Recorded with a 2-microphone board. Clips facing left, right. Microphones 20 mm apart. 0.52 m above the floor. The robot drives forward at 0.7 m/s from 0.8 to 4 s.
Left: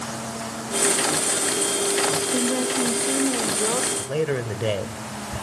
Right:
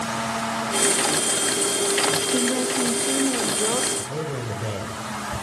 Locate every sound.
2.3 s a woman speaking: 10° right (ahead or behind), 0.9 m; by 3.9 s 5° right (ahead or behind), 1.6 m
4.0 s a man speaking: 65° left (ahead or behind), 1.6 m